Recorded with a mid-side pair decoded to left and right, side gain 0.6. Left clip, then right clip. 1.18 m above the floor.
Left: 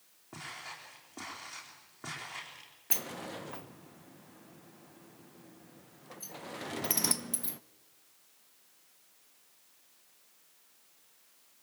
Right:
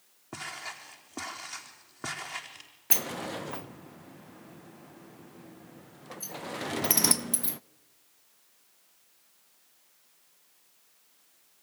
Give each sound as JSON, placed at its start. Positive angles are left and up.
{"t": 0.3, "sound": "footsteps", "azimuth_deg": -40, "distance_m": 4.5}
{"t": 2.9, "sound": "a sliding door", "azimuth_deg": -30, "distance_m": 0.5}